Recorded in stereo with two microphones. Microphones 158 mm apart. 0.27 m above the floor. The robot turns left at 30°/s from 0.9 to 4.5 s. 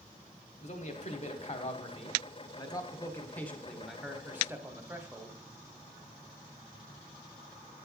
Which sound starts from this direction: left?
A man speaking, at 0.6 s.